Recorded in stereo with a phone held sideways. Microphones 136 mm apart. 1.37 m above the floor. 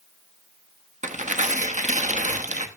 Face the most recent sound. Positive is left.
turn(degrees=-65)  # may be behind; listen again after turning